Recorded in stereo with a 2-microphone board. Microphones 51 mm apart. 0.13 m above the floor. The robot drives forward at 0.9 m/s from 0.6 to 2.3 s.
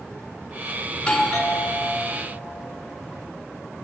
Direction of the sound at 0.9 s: 20° left (ahead or behind).